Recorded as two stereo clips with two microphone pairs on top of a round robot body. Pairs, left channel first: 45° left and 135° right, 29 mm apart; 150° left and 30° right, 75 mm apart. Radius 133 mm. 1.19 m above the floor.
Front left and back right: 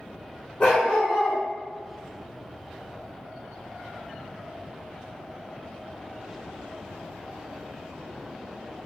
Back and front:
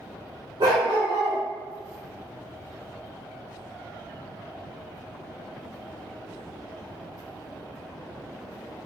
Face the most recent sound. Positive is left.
turn(degrees=5)